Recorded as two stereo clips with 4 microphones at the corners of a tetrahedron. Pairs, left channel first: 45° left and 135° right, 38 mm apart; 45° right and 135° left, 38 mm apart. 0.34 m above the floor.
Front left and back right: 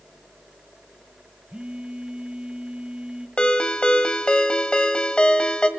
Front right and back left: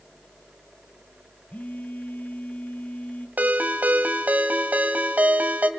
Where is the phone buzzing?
80° right, 1.4 m.